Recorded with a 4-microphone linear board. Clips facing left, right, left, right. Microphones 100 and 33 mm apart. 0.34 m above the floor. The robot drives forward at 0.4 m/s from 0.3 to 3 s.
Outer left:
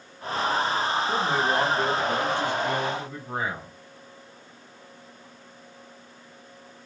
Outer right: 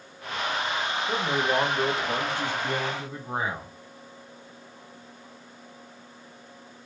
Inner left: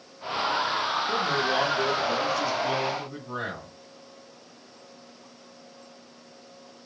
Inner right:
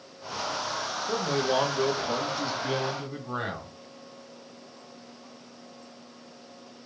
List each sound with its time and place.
1.1 s a man speaking: 25° right (ahead or behind), 0.9 m; by 3.7 s 20° right (ahead or behind), 1.2 m